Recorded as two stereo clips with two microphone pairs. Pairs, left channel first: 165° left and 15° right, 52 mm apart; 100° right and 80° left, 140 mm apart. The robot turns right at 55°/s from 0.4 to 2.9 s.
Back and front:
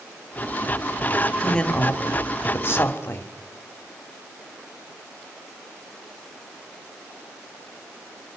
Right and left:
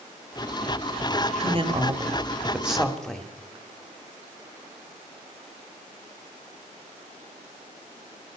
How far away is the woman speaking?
About 1.7 m.